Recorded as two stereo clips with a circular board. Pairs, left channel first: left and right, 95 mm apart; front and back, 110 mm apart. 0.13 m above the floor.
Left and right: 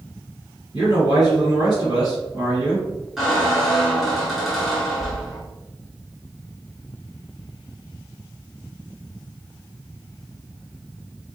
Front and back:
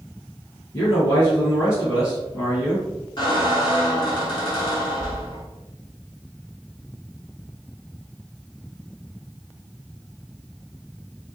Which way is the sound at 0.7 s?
50° right.